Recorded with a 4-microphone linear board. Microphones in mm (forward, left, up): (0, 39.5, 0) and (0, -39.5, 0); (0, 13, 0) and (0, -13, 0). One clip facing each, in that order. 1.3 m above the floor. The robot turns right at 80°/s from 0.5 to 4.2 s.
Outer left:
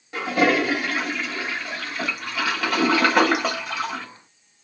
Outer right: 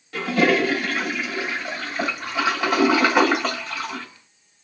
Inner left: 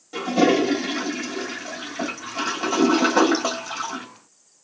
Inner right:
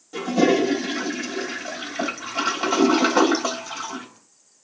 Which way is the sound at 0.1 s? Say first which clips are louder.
Outer right 1 dB, even; 15° left (ahead or behind).